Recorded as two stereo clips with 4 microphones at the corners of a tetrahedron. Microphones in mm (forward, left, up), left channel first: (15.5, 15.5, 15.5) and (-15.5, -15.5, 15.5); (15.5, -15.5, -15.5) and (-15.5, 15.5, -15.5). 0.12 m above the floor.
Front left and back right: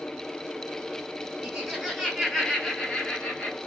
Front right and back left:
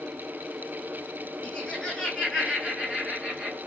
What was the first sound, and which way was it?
Laughter, 85° right.